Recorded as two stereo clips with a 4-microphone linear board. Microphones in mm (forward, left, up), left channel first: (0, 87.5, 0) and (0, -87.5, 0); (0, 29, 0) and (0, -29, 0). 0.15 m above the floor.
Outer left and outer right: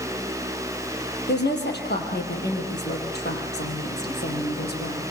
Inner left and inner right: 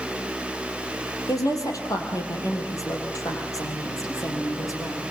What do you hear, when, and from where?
1.3 s a woman speaking: 75° left (ahead or behind), 5 m; by 5.0 s 65° left (ahead or behind), 5.5 m